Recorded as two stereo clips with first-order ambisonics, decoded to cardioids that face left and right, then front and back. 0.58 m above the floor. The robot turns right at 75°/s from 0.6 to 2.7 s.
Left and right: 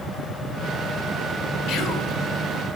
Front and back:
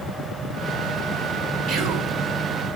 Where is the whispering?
135° left, 1.8 m; by 2.1 s 170° left, 1.8 m.